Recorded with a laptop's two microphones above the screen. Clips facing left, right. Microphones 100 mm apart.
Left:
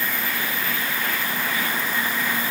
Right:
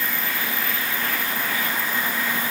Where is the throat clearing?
No throat clearing in this recording.